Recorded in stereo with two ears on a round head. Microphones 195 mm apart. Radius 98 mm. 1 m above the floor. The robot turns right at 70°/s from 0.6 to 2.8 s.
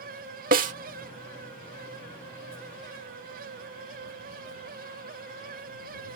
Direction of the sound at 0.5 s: 40° right (ahead or behind).